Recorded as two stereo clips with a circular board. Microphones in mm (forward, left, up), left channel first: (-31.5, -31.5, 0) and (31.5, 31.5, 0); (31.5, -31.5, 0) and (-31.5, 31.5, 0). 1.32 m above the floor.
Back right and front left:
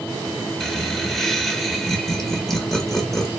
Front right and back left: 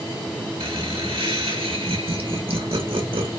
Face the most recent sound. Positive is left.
turn(degrees=145)